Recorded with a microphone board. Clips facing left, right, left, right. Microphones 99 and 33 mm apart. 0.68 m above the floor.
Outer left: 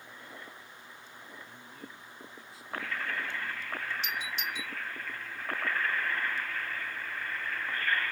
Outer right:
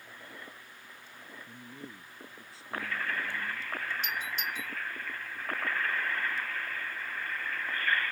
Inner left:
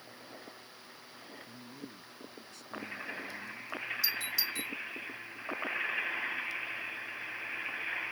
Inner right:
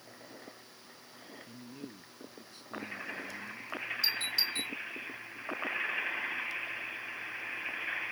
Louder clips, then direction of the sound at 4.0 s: Outer right 1 dB, inner right 4 dB; 50° right (ahead or behind).